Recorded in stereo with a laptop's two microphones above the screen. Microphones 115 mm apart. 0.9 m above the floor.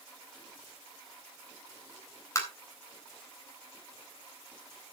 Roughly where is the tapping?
Left.